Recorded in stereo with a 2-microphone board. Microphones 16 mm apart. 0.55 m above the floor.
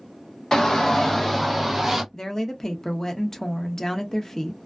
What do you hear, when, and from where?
0.5 s a shout: 40° left (ahead or behind), 1.4 m; by 2.0 s 20° right (ahead or behind), 1.3 m
2.1 s a woman speaking: 30° left (ahead or behind), 0.6 m